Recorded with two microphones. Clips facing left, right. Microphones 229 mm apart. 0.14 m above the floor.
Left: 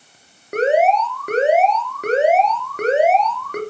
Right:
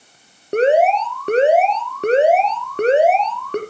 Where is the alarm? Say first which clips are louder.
Right 2 dB; 30° right (ahead or behind), 3 m.